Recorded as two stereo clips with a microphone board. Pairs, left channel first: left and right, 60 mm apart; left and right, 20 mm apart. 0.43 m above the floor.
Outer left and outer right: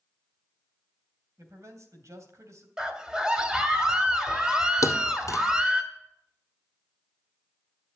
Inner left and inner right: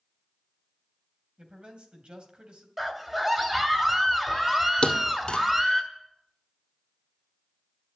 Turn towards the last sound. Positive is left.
turn(degrees=65)  # may be behind; listen again after turning